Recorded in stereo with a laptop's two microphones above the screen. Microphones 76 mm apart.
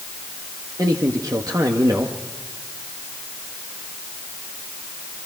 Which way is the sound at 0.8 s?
50° right (ahead or behind).